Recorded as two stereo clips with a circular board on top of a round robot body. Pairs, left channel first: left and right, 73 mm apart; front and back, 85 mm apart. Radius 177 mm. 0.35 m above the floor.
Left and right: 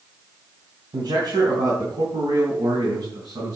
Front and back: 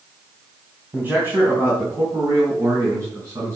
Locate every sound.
0.9 s a man speaking: 110° right, 3.5 m; by 3.6 s 130° right, 5 m